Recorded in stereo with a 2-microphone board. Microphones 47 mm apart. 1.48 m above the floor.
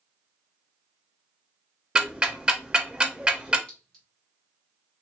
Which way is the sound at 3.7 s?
20° left (ahead or behind).